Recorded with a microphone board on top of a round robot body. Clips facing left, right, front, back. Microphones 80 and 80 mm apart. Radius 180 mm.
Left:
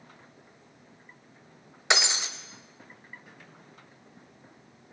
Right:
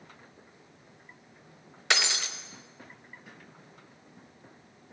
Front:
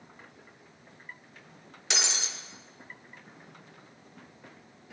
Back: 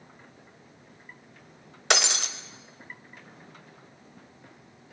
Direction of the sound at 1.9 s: 160° left.